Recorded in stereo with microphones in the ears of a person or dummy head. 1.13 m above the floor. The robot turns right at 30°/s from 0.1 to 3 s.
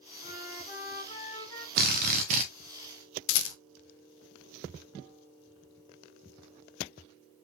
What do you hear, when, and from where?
0.2 s a flute: 120° left, 2.5 m; by 1.7 s 165° left, 2.5 m
1.8 s a drill: 50° right (ahead or behind), 0.9 m; by 2.5 s 40° right (ahead or behind), 0.9 m
3.3 s a rattle: 70° left (ahead or behind), 0.6 m